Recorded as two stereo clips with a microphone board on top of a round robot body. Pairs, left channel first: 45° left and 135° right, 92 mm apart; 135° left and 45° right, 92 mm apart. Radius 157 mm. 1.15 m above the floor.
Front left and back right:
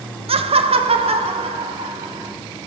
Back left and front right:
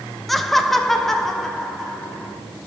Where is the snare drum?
No snare drum in this recording.